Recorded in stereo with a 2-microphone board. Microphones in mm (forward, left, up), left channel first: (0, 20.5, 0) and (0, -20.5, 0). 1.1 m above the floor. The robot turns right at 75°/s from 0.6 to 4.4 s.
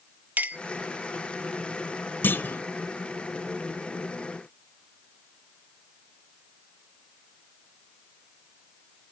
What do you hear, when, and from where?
0.4 s a clink: 40° right (ahead or behind), 0.8 m
2.2 s a clunk: 55° left (ahead or behind), 1.2 m; by 2.6 s 45° left (ahead or behind), 1.2 m